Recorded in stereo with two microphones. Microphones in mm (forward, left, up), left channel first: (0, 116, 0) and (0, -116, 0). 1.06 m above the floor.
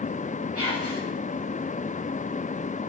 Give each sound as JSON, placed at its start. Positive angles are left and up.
{"t": 0.6, "sound": "whispering", "side_deg": -80, "distance_m": 7.0}